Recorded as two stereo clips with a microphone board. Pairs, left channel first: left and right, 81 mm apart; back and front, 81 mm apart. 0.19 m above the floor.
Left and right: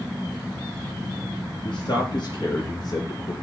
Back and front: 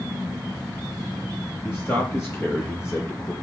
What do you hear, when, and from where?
1.6 s a man speaking: 120° left, 4.5 m; by 3.3 s 125° left, 4 m